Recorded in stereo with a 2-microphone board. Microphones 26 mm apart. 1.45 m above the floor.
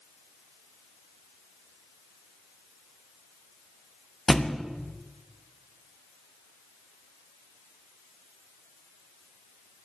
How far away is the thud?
About 0.8 m.